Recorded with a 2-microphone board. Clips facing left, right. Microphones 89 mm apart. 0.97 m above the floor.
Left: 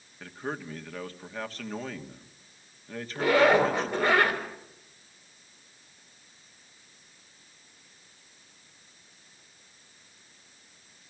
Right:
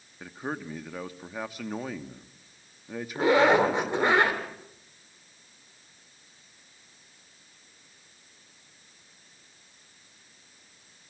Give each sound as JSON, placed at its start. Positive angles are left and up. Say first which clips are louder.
{"t": 0.2, "sound": "a man speaking", "louder": "right 1 dB", "side_deg": -10, "distance_m": 1.4}
{"t": 3.1, "sound": "a zipper", "louder": "right 1 dB", "side_deg": -25, "distance_m": 4.0}